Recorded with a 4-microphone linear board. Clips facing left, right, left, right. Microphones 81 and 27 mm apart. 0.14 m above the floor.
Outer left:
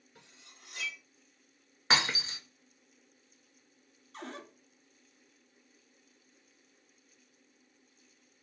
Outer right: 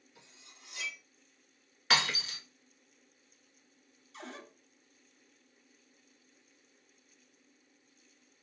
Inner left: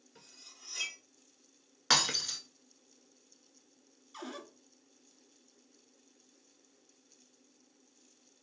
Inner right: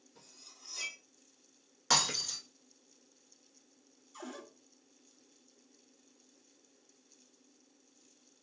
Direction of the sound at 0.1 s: 50° left (ahead or behind).